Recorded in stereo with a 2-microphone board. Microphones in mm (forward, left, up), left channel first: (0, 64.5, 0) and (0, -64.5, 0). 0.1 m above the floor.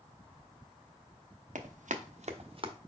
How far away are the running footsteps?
About 1.0 m.